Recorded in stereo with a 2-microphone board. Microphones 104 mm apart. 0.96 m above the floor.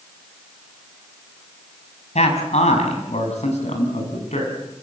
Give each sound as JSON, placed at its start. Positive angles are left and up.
{"t": 2.1, "sound": "a man speaking", "side_deg": 85, "distance_m": 6.0}